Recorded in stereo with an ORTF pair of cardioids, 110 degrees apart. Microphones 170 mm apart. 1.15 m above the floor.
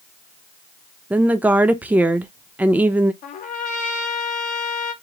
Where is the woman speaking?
10° right, 0.6 m.